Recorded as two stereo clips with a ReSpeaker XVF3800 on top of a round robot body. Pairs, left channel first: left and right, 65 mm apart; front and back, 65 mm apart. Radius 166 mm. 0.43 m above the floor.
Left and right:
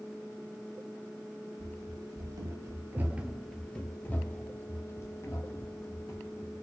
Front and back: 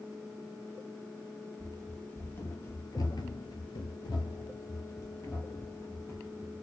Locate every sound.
1.6 s running footsteps: 80° right, 1.3 m; by 6.6 s 55° left, 2.5 m